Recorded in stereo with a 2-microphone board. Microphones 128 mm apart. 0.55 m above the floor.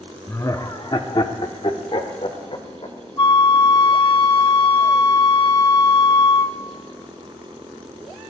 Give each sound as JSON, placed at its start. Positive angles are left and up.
{"t": 0.3, "sound": "laughter", "side_deg": 20, "distance_m": 0.8}
{"t": 3.2, "sound": "a flute", "side_deg": 40, "distance_m": 0.5}